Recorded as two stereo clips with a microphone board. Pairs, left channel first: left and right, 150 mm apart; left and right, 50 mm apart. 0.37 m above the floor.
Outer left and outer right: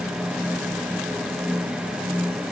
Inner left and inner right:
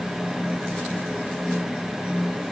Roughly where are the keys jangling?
I don't hear keys jangling.